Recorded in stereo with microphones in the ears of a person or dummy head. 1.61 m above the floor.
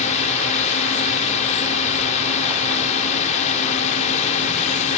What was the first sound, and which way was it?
A drone, 40° left (ahead or behind).